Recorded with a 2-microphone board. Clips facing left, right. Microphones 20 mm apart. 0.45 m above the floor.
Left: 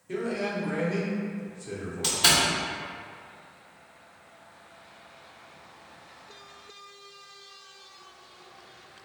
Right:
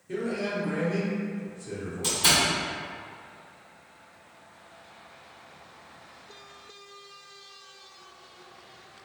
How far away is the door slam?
About 0.9 m.